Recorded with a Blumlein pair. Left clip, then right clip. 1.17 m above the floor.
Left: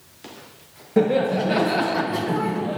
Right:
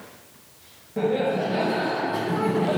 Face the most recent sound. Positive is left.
turn(degrees=-25)